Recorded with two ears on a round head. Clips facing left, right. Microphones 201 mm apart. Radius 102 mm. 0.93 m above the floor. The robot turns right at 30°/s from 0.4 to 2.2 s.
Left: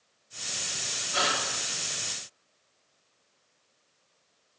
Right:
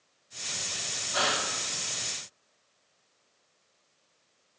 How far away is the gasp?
About 1.0 m.